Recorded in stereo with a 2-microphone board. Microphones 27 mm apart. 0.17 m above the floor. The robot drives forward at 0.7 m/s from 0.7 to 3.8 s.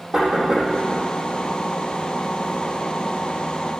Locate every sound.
0.1 s knocking: 25° right (ahead or behind), 5.5 m